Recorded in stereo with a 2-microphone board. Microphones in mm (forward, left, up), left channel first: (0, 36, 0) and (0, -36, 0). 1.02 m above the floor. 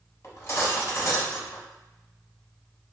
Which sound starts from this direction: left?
Cutlery clinking, at 0.2 s.